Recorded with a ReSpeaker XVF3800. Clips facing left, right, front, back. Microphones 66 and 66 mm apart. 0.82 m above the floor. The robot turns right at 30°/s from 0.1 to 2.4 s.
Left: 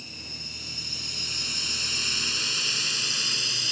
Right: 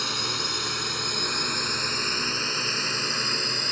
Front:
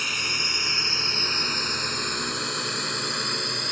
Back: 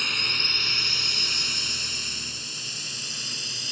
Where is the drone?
85° right; by 3.7 s 40° right.